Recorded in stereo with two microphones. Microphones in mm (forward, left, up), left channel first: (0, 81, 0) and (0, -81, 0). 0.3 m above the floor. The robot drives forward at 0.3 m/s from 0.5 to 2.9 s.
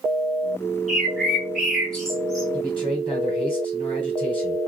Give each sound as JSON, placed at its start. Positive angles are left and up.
{"t": 0.9, "sound": "a bird", "side_deg": 0, "distance_m": 1.3}
{"t": 2.5, "sound": "a man speaking", "side_deg": 30, "distance_m": 1.5}